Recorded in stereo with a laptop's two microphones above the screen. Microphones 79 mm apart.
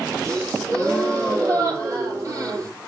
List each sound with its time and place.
0.2 s a gasp: 40° right (ahead or behind), 5.5 m